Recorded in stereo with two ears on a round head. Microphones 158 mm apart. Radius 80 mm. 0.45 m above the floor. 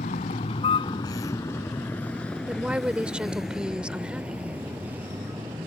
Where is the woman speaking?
5° right (ahead or behind).